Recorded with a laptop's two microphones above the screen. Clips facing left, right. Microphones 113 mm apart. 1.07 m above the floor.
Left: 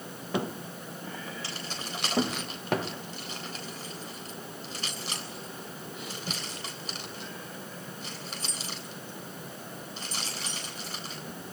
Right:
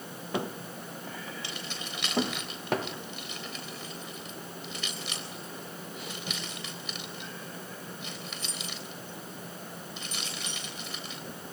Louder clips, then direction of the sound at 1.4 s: Left 1 dB; 40° left (ahead or behind).